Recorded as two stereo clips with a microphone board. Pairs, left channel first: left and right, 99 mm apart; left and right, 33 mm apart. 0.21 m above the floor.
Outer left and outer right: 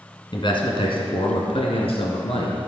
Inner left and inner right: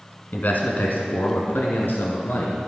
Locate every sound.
0.3 s a man speaking: 55° left (ahead or behind), 1.8 m; by 2.6 s 70° left (ahead or behind), 3 m